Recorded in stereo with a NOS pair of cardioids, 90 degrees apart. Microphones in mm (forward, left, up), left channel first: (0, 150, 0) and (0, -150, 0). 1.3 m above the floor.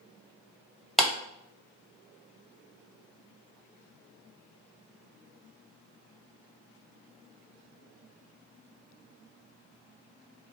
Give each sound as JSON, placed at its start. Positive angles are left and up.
{"t": 1.0, "sound": "a clap", "azimuth_deg": 0, "distance_m": 1.3}